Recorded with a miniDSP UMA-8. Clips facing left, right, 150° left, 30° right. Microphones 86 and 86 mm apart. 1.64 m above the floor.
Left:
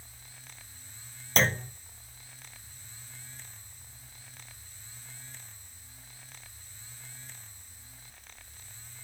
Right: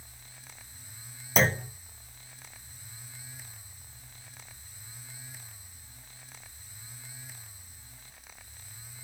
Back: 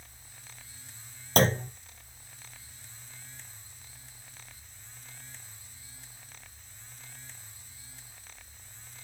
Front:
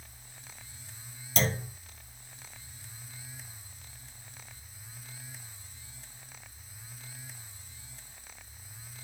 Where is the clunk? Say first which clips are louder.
Right 2 dB, back 7 dB; 175° right, 0.5 m.